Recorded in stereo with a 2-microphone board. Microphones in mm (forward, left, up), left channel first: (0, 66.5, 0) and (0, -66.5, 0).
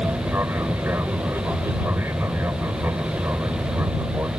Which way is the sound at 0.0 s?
15° right (ahead or behind).